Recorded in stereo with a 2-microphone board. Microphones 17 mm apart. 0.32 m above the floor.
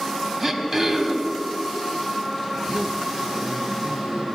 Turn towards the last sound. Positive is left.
turn(degrees=-50)  # may be behind; listen again after turning